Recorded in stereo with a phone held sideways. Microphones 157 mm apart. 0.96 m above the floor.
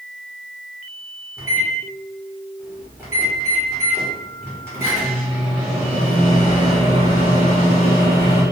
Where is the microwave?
15° right (ahead or behind), 0.9 m.